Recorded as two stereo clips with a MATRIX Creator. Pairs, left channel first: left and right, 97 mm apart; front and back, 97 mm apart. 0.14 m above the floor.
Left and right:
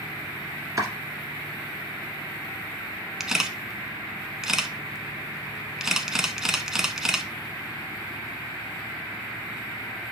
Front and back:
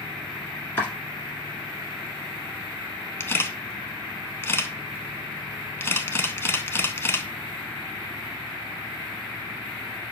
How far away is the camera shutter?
About 0.7 m.